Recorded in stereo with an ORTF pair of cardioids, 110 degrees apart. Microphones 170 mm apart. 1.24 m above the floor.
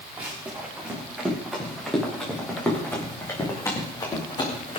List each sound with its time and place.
0.2 s running footsteps: 10° right, 8.5 m; by 4.8 s 35° left, 6 m